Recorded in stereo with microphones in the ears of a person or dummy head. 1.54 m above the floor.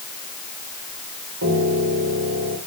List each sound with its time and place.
1.4 s a piano: 70° right (ahead or behind), 3 m